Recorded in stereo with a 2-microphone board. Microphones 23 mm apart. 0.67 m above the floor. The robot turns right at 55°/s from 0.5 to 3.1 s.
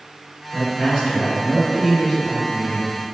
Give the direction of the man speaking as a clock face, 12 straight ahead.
3 o'clock.